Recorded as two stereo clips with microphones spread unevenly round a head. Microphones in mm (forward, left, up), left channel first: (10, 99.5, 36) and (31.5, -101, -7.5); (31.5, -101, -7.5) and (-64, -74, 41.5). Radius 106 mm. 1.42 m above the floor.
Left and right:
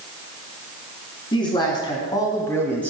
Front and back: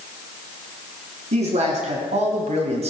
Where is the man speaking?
165° left, 3.5 m; by 2.9 s 175° right, 2.0 m.